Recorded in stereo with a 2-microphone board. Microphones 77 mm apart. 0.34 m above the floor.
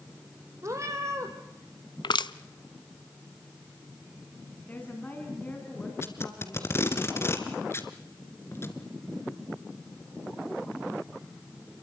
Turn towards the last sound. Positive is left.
turn(degrees=35)  # may be behind; listen again after turning